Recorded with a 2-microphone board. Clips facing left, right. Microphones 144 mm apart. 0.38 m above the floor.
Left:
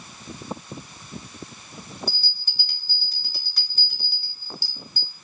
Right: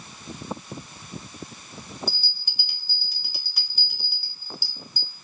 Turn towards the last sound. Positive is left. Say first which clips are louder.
# even
turn(degrees=-15)  # may be behind; listen again after turning